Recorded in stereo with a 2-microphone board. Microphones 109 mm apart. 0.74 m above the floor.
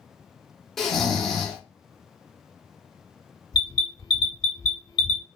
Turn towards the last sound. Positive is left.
turn(degrees=40)  # may be behind; listen again after turning